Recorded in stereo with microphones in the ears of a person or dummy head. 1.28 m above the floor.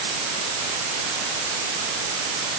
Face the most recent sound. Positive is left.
No sound to turn to.